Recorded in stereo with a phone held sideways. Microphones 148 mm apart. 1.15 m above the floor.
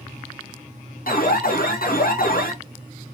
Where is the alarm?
80° left, 1.2 m.